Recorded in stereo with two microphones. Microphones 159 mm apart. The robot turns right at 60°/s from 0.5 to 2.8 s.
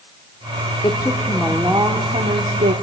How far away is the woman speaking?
About 2.0 m.